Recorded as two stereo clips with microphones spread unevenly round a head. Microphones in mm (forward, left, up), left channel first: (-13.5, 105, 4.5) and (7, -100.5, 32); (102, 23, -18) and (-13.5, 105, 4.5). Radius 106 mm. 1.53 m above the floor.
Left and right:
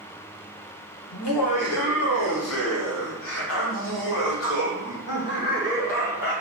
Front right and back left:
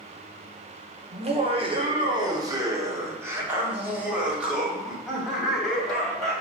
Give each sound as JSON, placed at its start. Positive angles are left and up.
{"t": 1.1, "sound": "laughter", "azimuth_deg": 100, "distance_m": 1.8}